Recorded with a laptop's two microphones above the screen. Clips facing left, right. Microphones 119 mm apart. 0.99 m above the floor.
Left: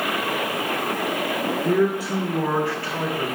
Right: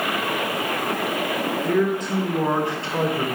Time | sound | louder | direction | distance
1.6 | a man speaking | left 1 dB | 20° left (ahead or behind) | 0.8 m